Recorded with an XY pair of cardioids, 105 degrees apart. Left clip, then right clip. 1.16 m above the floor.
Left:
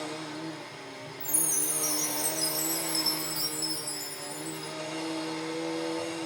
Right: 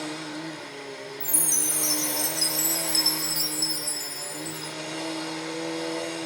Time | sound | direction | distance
0.0 | a machine running | 35° right | 0.7 m
1.2 | a chime | 55° right | 0.9 m